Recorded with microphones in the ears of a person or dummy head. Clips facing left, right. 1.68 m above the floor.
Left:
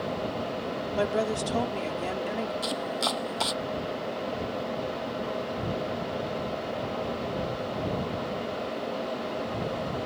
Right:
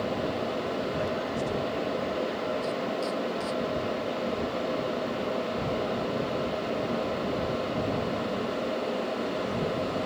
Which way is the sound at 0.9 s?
80° left.